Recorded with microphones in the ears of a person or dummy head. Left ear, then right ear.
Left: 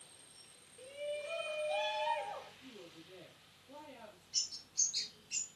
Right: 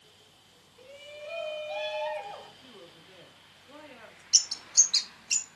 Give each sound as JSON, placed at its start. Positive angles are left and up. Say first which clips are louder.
{"t": 0.8, "sound": "a shout", "louder": "left 3 dB", "side_deg": -10, "distance_m": 3.5}
{"t": 2.6, "sound": "a woman speaking", "louder": "right 3 dB", "side_deg": -70, "distance_m": 3.5}
{"t": 4.3, "sound": "a bird", "louder": "right 13 dB", "side_deg": -70, "distance_m": 1.7}